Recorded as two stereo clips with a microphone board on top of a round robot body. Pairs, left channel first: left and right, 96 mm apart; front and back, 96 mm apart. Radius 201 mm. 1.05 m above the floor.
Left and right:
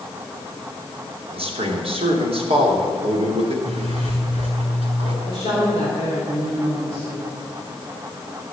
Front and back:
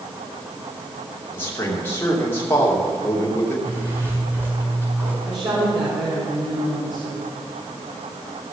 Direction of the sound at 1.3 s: 70° right.